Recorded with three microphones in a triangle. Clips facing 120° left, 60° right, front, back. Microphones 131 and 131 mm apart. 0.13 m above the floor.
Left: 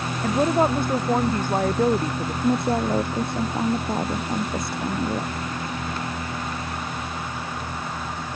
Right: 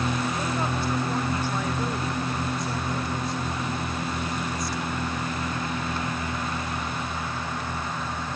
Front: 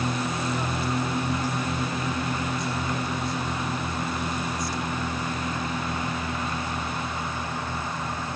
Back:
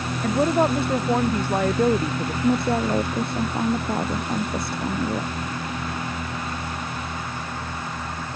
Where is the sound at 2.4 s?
150° left.